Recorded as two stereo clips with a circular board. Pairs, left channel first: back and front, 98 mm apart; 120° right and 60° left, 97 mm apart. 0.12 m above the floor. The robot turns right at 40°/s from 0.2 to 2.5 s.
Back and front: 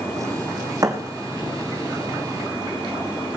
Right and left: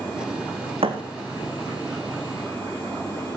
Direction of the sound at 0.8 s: 55° left.